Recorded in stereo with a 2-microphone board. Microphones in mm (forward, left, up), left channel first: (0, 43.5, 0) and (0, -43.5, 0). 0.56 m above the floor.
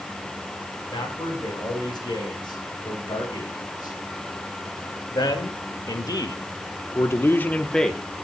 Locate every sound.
0.9 s a man speaking: 60° left (ahead or behind), 5.5 m; by 8.0 s centre (ahead or behind), 1.1 m